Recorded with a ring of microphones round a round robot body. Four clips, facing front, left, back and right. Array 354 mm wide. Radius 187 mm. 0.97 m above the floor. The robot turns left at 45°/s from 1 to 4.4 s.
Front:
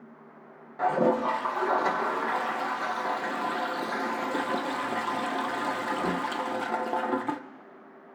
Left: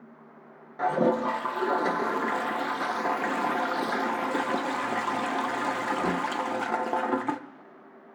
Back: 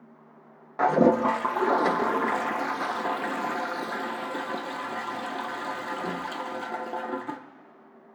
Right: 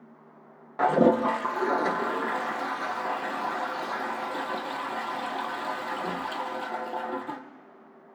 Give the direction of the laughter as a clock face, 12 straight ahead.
I don't hear laughter.